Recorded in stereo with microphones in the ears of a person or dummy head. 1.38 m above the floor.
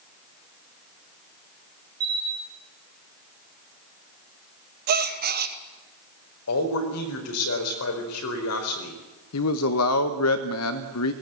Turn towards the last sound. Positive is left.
turn(degrees=85)